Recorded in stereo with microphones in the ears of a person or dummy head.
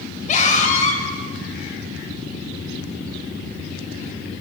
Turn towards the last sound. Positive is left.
turn(degrees=45)  # may be behind; listen again after turning